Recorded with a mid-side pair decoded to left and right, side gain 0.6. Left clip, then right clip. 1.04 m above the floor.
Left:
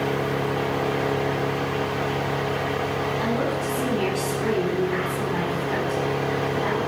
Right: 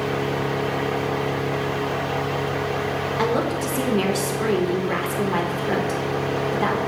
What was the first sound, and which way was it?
A woman speaking, 55° right.